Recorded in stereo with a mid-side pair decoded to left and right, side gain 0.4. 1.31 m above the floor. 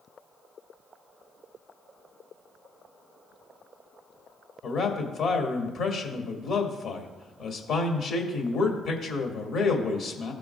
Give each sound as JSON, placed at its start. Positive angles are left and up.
{"t": 4.6, "sound": "a man speaking", "azimuth_deg": 70, "distance_m": 2.0}